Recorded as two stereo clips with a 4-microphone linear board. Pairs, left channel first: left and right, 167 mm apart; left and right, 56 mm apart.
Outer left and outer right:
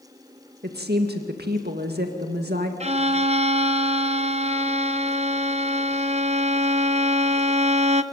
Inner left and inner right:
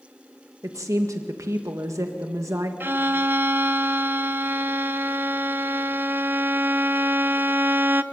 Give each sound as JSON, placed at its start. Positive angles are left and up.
{"t": 0.6, "sound": "a woman speaking", "side_deg": -75, "distance_m": 1.9}
{"t": 2.8, "sound": "a violin", "side_deg": -40, "distance_m": 0.7}